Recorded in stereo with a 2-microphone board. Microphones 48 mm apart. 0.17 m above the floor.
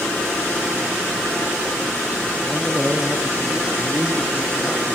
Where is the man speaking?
25° right (ahead or behind), 3.5 m; by 5.0 s 50° right (ahead or behind), 3 m.